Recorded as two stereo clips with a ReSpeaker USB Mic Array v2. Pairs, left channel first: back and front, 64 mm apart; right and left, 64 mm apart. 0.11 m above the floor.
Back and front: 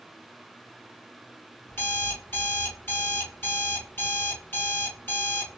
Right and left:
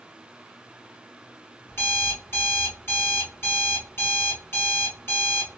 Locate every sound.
1.7 s an alarm clock: 135° right, 1.5 m